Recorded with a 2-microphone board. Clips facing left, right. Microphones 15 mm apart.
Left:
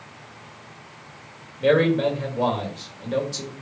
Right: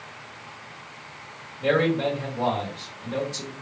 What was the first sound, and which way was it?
A man speaking, 35° left (ahead or behind).